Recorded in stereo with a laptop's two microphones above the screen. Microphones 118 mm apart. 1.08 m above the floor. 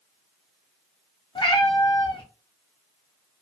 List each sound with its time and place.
1.4 s a cat meowing: 45° left (ahead or behind), 0.6 m